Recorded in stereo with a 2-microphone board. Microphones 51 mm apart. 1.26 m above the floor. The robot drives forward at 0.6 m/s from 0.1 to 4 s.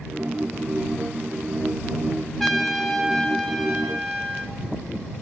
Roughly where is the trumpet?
Centre.